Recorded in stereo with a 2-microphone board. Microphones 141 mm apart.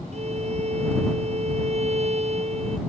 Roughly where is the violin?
Right.